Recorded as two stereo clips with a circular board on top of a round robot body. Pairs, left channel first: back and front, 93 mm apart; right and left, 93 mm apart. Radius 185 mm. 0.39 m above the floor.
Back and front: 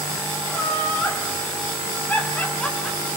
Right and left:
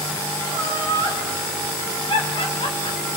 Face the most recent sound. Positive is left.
turn(degrees=-95)